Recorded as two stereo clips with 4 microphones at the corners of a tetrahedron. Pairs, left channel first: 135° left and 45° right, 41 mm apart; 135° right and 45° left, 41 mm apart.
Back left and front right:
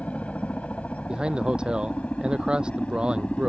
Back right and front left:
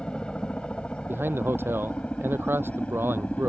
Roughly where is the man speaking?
Ahead left.